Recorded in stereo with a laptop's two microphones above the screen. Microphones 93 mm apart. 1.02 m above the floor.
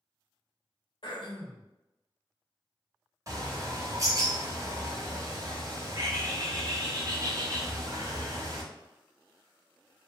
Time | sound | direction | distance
1.0 | throat clearing | 65° left (ahead or behind) | 0.8 m
3.3 | a bird | 40° right (ahead or behind) | 0.9 m